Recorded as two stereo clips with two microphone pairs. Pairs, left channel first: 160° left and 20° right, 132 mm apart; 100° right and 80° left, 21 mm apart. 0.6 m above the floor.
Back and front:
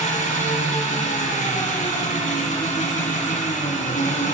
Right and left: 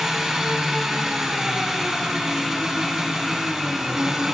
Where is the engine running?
150° left, 2 m.